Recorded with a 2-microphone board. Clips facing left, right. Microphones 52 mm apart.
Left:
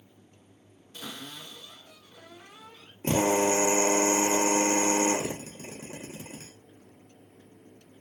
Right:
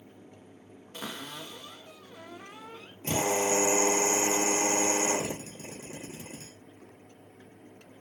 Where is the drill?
35° left (ahead or behind), 0.9 m.